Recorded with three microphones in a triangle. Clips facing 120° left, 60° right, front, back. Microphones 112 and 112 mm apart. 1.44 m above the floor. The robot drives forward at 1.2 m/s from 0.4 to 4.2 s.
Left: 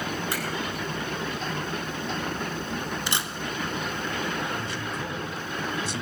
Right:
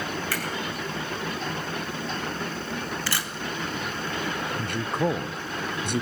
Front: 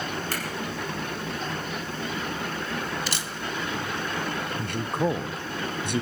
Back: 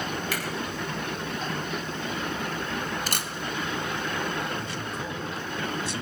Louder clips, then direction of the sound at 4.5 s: Right 4 dB, front 5 dB; 30° right.